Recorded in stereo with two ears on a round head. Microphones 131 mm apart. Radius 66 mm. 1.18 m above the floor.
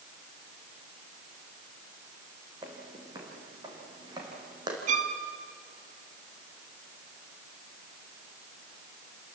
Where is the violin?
50° right (ahead or behind), 1.8 m.